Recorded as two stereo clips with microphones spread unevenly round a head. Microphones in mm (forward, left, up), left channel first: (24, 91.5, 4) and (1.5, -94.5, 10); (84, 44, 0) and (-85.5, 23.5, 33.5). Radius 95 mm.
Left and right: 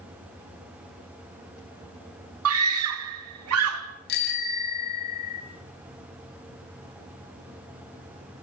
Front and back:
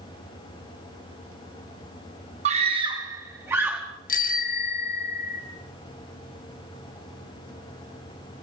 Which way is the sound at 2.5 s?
115° right.